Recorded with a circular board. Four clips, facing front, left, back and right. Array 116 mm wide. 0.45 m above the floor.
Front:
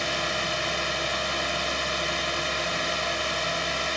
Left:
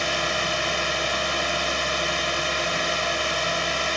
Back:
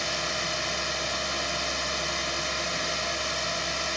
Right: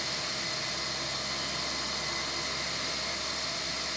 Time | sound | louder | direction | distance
0.0 | a drone | left 13 dB, front 3 dB | 75° left | ?